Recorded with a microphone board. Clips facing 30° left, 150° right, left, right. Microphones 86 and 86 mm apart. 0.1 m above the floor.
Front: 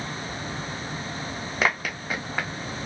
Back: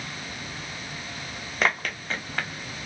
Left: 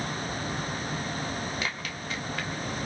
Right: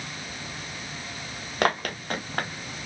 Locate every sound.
1.6 s running footsteps: 60° right, 0.8 m; by 2.8 s 45° right, 1.7 m